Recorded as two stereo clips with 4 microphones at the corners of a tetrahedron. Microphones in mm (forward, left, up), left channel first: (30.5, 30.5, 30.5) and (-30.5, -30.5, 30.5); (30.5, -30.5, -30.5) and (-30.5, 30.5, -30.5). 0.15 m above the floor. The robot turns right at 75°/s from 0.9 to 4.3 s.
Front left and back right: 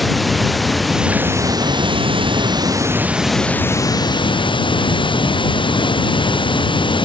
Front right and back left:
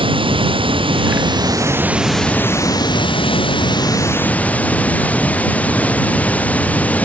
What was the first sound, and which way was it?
Running water, 135° left.